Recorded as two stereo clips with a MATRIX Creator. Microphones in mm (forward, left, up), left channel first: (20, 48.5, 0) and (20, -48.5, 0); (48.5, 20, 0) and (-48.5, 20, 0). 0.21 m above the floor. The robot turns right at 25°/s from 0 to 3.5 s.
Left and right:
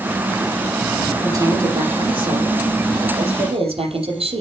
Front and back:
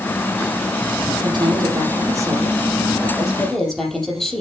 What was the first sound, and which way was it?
A woman speaking, 145° right.